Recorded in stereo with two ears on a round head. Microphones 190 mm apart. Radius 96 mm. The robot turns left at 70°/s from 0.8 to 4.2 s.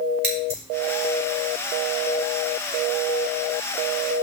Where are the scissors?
50° right (ahead or behind), 4.5 m.